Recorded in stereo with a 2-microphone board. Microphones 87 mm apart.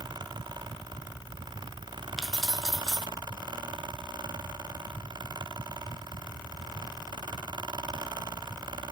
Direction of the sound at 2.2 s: Centre (ahead or behind).